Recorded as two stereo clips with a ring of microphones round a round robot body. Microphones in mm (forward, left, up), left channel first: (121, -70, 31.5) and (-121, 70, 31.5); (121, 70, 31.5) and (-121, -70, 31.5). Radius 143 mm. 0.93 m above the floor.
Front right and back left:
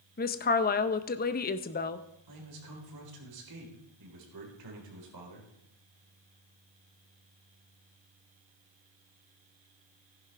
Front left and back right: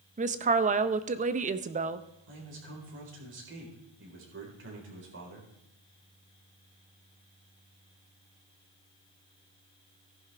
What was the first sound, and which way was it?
A woman speaking, 85° right.